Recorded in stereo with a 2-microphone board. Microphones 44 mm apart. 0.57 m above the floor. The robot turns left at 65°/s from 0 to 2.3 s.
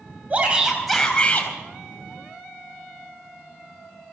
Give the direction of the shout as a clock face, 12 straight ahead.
5 o'clock.